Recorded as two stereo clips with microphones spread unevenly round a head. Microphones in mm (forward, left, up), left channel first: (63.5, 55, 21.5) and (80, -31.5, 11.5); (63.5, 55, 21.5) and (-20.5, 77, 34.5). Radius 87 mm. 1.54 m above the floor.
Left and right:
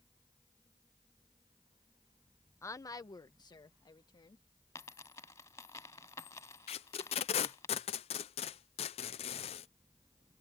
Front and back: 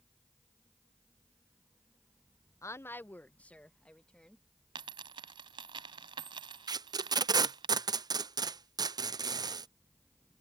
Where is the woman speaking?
40° left; by 4.4 s 70° left.